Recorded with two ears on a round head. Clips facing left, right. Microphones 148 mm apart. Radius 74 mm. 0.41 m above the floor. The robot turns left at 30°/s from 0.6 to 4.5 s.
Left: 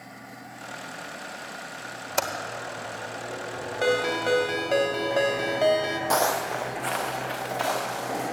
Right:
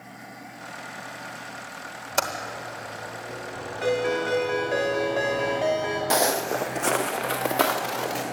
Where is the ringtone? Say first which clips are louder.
Even; 60° left (ahead or behind), 1.6 m; by 6.0 s 45° left (ahead or behind), 1.6 m.